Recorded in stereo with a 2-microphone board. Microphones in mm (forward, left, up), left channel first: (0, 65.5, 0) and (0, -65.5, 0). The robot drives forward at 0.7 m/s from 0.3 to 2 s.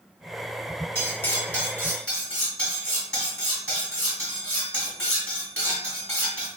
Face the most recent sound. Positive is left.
turn(degrees=10)  # may be behind; listen again after turning